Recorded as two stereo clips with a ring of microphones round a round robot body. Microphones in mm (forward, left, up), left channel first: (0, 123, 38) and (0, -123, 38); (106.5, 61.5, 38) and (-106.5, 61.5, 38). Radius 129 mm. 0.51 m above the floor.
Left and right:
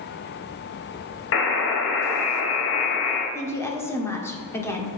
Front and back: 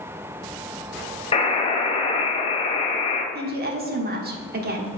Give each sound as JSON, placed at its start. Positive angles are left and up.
{"t": 1.3, "sound": "a buzzer", "azimuth_deg": 60, "distance_m": 1.4}
{"t": 3.4, "sound": "a woman speaking", "azimuth_deg": 165, "distance_m": 1.3}